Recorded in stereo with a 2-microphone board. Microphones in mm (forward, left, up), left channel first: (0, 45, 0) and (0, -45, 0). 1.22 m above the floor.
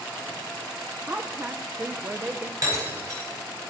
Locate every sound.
1.1 s a woman speaking: 25° right (ahead or behind), 0.5 m
2.6 s breaking glass: 45° right (ahead or behind), 4.5 m